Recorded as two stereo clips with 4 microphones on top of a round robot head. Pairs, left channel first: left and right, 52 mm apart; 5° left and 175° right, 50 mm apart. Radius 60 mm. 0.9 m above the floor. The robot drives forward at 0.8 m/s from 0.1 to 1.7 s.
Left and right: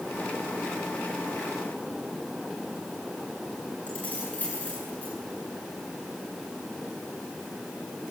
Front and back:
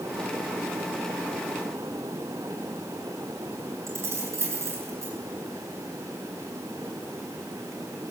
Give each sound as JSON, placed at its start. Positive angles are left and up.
{"t": 3.9, "sound": "keys jangling", "azimuth_deg": 155, "distance_m": 8.0}